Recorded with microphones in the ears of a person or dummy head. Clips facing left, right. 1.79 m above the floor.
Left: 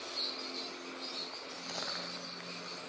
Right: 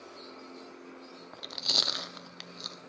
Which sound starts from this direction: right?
Chewing, at 1.3 s.